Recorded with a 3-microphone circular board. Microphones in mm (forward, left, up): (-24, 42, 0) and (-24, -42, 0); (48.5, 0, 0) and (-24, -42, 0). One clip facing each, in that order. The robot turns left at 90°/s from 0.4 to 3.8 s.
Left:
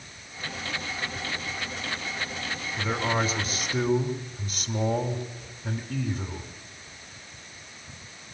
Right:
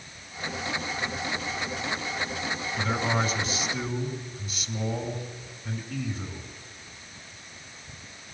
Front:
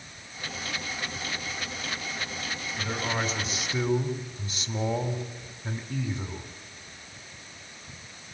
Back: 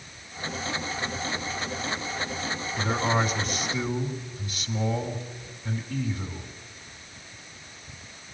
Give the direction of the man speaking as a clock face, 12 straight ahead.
6 o'clock.